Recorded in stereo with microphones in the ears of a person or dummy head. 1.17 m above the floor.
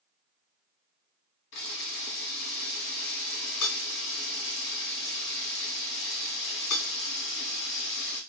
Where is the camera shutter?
70° left (ahead or behind), 2.5 m.